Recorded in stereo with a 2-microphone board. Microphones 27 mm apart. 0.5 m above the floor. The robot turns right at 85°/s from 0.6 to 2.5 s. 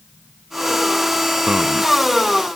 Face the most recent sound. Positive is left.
turn(degrees=15)